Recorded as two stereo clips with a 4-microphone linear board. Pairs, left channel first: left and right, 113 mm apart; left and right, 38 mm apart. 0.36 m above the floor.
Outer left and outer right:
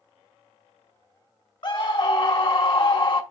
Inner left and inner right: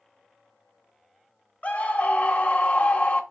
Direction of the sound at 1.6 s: 45° left (ahead or behind).